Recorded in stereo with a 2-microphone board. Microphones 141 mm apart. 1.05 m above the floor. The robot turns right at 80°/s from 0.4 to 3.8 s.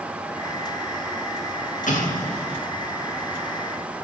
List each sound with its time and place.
1.9 s an explosion: 65° left (ahead or behind), 1.0 m; by 2.6 s 40° left (ahead or behind), 1.0 m